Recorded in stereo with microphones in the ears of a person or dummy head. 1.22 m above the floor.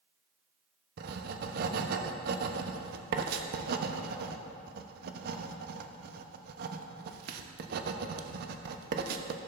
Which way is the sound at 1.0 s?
60° right (ahead or behind).